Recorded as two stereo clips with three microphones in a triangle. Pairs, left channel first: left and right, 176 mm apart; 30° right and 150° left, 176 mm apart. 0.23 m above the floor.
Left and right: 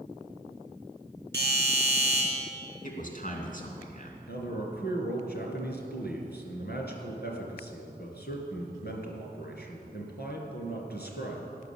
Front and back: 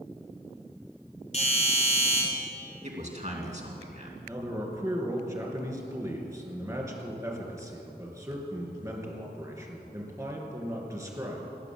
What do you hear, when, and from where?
1.3 s a doorbell: 15° left, 5 m
2.8 s a man speaking: 115° left, 3 m
4.3 s a man speaking: 80° left, 3 m